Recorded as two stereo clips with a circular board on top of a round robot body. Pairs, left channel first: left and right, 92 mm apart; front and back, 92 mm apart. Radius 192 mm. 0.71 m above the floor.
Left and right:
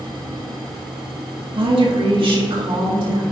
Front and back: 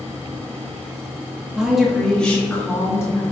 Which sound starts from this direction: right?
A woman speaking, at 1.5 s.